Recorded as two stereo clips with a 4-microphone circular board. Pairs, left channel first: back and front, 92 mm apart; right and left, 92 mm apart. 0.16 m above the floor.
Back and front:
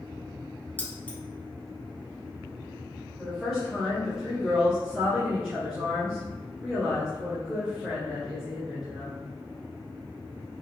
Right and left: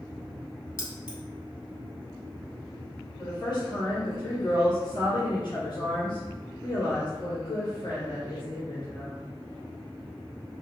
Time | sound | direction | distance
0.8 | keys jangling | 115° right | 1.3 m
3.2 | a woman speaking | 85° right | 1.9 m